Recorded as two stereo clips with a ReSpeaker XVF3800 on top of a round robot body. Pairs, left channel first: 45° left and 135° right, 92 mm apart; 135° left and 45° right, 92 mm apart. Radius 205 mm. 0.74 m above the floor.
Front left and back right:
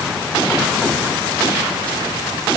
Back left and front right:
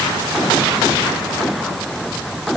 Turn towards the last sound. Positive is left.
No sound to turn to.